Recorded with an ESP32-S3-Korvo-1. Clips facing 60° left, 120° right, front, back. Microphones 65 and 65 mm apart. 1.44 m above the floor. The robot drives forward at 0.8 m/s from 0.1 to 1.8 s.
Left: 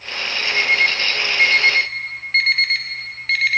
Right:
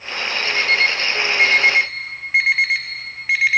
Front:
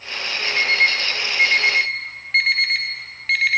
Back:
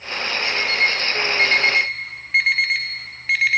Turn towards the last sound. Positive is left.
turn(degrees=-110)